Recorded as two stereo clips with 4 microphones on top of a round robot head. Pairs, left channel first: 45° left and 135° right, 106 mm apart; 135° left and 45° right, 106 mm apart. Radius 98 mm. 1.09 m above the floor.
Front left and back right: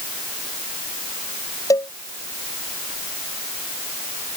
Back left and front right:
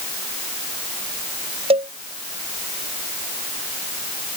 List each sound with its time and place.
1.7 s a cowbell: 15° right